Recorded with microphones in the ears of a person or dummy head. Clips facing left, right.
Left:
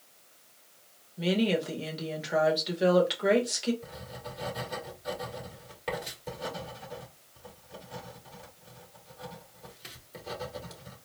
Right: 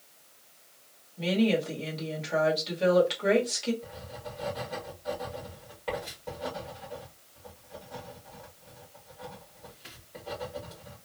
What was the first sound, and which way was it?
A woman speaking, 15° left (ahead or behind).